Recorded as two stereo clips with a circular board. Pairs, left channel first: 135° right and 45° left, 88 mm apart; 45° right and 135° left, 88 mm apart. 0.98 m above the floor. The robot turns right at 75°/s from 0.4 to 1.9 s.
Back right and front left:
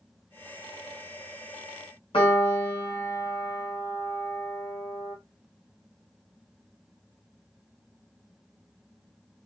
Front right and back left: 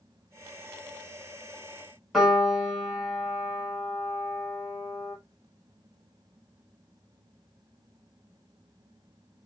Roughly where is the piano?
Behind right.